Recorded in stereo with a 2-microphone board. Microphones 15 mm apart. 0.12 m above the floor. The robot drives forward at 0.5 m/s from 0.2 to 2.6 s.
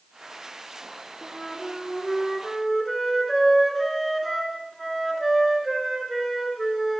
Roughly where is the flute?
Centre.